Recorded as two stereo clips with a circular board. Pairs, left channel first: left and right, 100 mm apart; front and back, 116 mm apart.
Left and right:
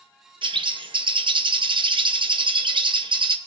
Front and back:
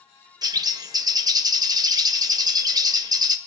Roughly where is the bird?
Behind right.